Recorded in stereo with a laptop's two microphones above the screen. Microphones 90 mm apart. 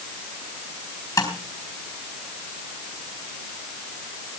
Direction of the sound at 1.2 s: 35° left (ahead or behind).